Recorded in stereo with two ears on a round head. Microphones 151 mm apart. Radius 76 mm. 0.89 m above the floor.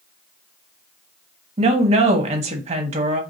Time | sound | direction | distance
1.6 | a woman speaking | 40° right (ahead or behind) | 1.3 m